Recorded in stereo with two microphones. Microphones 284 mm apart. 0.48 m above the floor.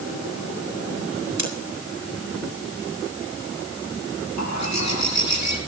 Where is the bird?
65° left (ahead or behind), 3 m.